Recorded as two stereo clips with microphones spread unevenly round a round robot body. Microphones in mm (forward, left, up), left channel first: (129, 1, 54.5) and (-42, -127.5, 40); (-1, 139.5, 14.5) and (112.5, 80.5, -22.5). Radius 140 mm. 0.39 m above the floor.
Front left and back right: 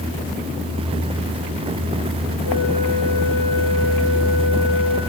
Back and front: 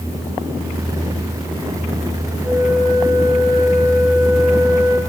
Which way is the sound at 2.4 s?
50° left.